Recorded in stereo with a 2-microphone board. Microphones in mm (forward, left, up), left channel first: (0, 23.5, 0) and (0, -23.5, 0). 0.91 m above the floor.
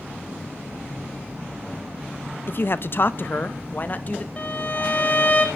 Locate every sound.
2.5 s a man speaking: 50° left (ahead or behind), 0.6 m; by 4.3 s 35° left (ahead or behind), 1.3 m
4.4 s a violin: 30° left (ahead or behind), 1.7 m